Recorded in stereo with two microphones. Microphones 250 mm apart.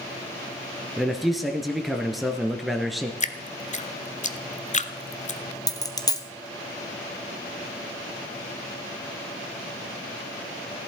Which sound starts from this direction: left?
Dripping, at 3.2 s.